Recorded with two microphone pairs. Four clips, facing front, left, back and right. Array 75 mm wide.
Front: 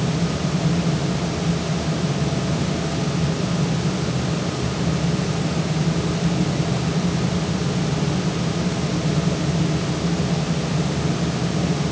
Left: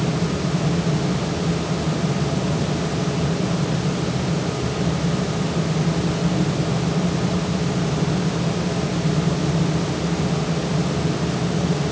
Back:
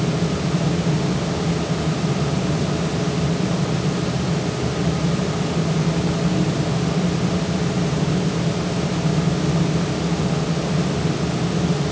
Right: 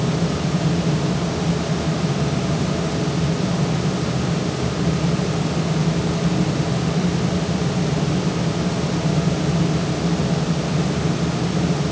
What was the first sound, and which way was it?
Only background noise.